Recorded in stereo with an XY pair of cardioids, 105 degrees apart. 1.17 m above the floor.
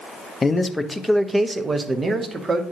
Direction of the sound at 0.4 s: 30° left.